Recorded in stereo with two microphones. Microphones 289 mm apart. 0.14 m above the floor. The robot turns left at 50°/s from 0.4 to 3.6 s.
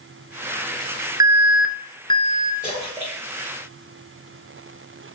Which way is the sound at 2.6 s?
Centre (ahead or behind).